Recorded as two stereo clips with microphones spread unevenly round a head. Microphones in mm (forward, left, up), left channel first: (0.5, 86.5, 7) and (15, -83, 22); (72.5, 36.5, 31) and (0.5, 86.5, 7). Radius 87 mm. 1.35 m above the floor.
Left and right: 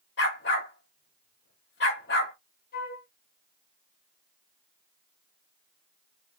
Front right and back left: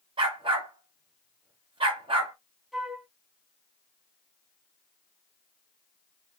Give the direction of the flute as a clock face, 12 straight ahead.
10 o'clock.